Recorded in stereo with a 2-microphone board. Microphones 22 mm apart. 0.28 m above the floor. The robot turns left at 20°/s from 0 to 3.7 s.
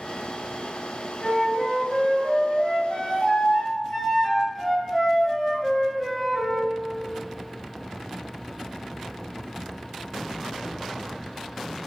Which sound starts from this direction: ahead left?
A flute, at 1.2 s.